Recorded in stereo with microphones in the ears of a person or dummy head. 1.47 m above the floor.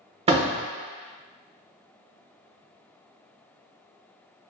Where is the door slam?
30° right (ahead or behind), 0.8 m.